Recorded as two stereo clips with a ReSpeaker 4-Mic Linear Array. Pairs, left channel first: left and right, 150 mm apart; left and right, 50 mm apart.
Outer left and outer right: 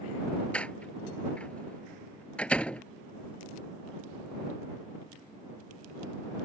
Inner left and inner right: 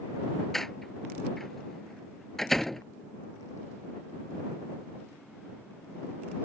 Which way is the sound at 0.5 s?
5° left (ahead or behind).